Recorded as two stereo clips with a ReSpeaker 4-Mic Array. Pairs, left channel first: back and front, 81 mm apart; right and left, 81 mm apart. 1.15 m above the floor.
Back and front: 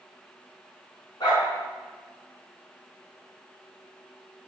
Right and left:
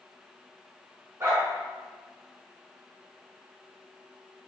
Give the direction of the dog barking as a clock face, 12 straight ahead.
7 o'clock.